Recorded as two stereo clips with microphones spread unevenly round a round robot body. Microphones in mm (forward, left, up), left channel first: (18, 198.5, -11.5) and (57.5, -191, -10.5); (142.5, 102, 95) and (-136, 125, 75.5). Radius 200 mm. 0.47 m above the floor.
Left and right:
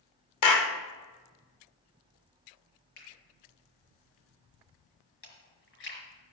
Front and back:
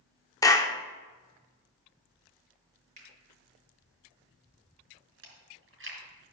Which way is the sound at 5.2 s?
130° left.